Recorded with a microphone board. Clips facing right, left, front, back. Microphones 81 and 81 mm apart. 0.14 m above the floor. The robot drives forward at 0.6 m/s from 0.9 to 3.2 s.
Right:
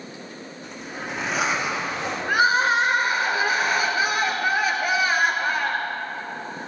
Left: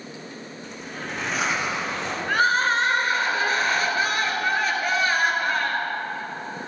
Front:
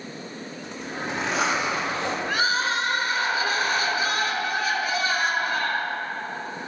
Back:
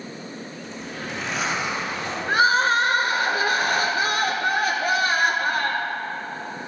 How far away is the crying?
About 0.7 m.